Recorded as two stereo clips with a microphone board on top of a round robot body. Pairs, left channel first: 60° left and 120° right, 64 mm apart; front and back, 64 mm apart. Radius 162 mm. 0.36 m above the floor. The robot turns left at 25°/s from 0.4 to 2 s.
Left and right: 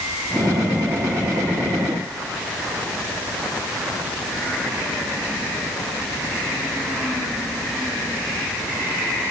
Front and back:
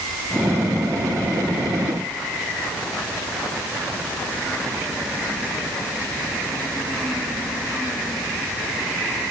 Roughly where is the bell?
I don't hear a bell.